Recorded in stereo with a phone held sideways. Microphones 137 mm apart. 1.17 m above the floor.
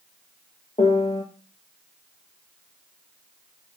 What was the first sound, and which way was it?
A piano, 55° left (ahead or behind).